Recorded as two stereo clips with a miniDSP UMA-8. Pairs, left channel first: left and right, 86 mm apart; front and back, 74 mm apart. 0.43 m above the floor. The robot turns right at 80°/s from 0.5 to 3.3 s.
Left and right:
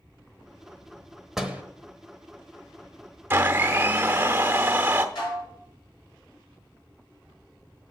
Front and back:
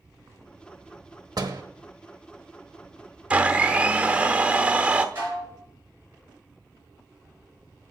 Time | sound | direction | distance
1.4 | a door slam | 175° right | 1.0 m
3.3 | a blender | 125° right | 0.8 m
5.2 | dishes clattering | 120° left | 5 m